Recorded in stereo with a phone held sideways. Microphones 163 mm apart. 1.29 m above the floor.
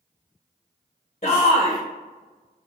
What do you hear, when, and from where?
1.2 s a shout: 55° left (ahead or behind), 1.1 m